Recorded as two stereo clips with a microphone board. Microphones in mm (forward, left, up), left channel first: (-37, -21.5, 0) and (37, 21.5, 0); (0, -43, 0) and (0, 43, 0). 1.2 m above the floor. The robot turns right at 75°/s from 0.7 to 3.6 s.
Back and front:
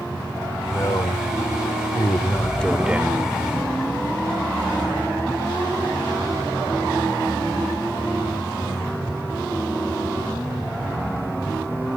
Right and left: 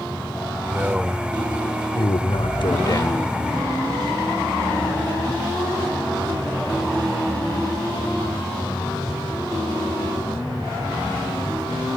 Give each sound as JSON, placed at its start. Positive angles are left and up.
{"t": 0.7, "sound": "a man speaking", "azimuth_deg": 150}